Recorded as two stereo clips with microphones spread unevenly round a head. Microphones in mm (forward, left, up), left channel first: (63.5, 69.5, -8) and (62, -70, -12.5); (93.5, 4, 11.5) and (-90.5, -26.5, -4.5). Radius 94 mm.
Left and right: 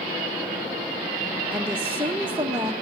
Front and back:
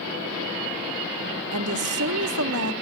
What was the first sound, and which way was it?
A woman speaking, 170° right.